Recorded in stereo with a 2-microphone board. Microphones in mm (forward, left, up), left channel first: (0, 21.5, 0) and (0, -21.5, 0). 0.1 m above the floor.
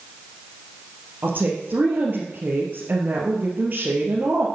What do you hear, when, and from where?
1.2 s a woman speaking: 40° right (ahead or behind), 2.5 m